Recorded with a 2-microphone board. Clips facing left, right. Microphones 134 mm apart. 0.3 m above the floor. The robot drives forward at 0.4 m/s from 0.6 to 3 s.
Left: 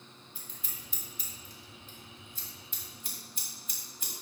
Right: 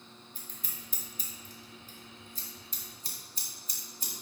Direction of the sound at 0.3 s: 50° right (ahead or behind).